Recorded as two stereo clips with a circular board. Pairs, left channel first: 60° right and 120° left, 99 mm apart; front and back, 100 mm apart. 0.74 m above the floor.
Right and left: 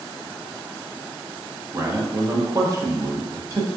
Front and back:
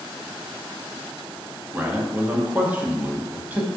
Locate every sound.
1.7 s a man speaking: 120° left, 0.5 m